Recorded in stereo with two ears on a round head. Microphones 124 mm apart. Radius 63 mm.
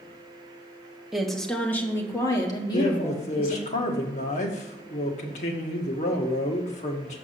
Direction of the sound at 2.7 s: 50° left (ahead or behind).